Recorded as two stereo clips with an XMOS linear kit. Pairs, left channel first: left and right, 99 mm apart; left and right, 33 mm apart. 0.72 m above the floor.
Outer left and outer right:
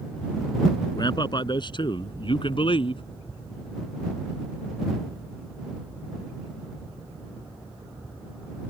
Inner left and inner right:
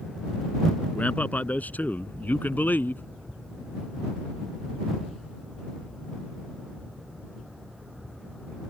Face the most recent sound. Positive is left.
turn(degrees=60)  # may be behind; listen again after turning